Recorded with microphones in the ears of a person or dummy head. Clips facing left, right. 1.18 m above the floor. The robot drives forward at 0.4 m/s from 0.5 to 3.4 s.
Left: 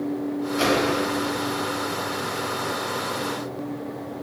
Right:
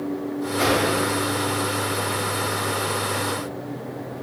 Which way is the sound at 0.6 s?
35° left (ahead or behind).